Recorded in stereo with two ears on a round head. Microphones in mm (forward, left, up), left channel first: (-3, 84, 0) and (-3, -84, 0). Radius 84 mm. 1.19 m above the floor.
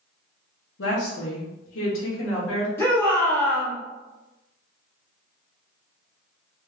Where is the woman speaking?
65° left (ahead or behind), 0.9 m; by 2.7 s 70° left (ahead or behind), 1.8 m.